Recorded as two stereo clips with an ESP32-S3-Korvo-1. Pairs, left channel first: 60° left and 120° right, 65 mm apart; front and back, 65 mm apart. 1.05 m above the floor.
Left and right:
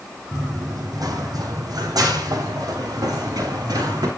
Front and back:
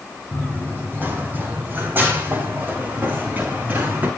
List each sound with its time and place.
0.3 s running footsteps: 125° right, 3 m; by 4.1 s 120° right, 5.5 m